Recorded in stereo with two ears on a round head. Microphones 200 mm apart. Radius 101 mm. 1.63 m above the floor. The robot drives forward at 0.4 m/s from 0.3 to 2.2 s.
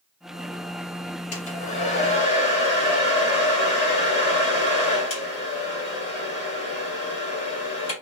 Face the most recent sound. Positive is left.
turn(degrees=30)  # may be behind; listen again after turning